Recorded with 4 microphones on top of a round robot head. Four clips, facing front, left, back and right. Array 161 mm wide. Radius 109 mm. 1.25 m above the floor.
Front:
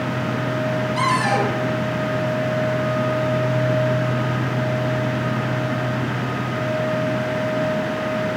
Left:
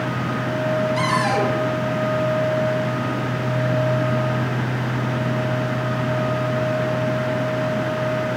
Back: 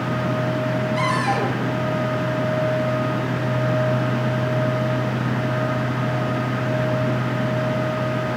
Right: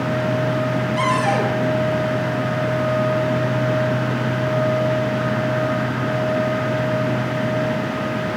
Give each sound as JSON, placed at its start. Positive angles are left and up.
{"t": 1.0, "sound": "a cupboard door", "azimuth_deg": 50, "distance_m": 7.5}